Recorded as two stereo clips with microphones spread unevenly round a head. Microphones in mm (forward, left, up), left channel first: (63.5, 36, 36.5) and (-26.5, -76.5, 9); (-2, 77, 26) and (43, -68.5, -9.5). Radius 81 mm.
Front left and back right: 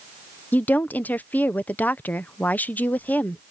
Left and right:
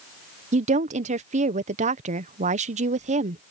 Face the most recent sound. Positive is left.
turn(degrees=-25)